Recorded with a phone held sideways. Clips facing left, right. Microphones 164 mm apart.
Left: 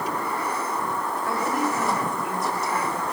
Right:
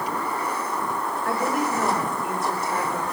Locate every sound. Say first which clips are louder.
1.2 s a woman speaking: right 1 dB; 80° right, 4.5 m; by 3.0 s 65° right (ahead or behind), 4.5 m